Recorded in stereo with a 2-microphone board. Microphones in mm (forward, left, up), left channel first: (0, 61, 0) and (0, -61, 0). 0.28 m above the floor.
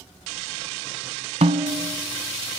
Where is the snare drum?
65° right (ahead or behind), 1.1 m.